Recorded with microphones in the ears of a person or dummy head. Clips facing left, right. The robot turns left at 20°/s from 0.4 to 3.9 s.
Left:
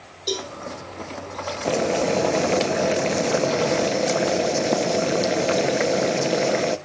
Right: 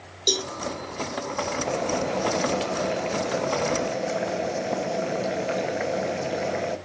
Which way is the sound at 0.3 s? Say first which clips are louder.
Even; 25° right (ahead or behind).